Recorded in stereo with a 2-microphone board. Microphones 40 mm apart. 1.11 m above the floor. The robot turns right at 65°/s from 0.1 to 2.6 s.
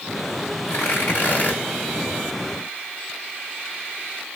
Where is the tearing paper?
90° left, 3 m; by 1.6 s 150° left, 3 m.